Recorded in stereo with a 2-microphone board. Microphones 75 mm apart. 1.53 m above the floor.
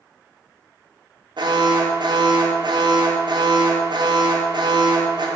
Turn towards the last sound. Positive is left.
turn(degrees=-70)  # may be behind; listen again after turning